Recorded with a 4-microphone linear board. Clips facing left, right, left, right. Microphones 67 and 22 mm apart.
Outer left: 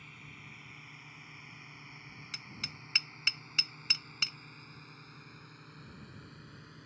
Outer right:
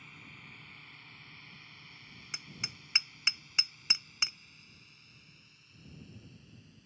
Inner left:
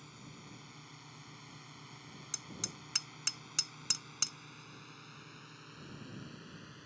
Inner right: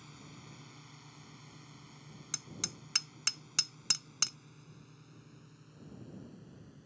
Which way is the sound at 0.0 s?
Centre (ahead or behind).